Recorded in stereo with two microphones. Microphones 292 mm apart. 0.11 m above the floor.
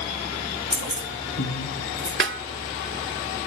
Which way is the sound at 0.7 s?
50° left (ahead or behind).